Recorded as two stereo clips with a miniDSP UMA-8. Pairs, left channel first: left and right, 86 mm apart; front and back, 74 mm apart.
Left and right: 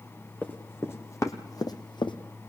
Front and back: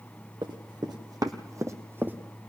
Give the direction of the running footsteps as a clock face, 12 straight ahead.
7 o'clock.